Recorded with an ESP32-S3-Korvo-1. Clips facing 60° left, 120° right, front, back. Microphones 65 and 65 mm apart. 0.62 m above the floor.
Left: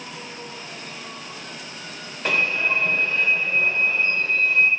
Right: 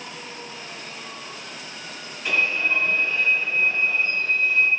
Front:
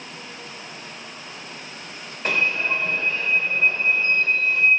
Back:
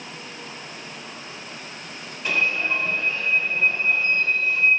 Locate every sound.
2.2 s an alarm: 45° left, 1.4 m